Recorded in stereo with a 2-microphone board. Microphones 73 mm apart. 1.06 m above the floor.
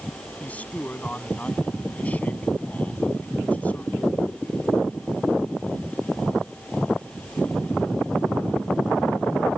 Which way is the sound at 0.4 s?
20° left (ahead or behind).